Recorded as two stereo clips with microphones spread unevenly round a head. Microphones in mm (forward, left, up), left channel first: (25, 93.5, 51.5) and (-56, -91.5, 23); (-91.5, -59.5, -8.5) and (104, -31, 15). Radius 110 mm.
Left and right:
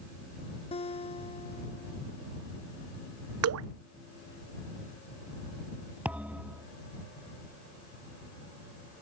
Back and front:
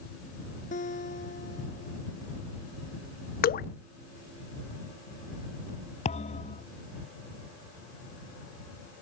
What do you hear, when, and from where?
0.7 s a guitar: 130° left
3.4 s dripping: 125° right
6.0 s a thud: 155° left